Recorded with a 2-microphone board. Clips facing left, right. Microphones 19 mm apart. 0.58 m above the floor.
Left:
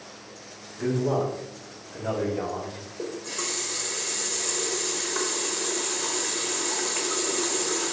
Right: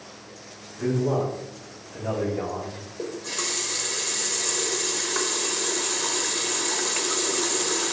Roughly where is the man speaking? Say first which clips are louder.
Right 1 dB; left.